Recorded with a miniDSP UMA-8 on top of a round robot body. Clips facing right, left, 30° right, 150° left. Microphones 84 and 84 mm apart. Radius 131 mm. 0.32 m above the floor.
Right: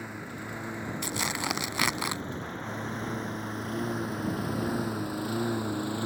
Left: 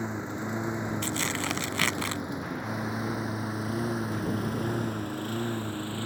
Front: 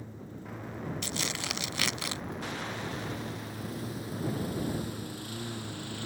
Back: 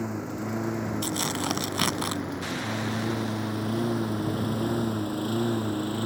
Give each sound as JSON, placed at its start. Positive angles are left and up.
{"t": 0.0, "sound": "a lawn mower", "azimuth_deg": 155}
{"t": 1.0, "sound": "tearing paper", "azimuth_deg": -165}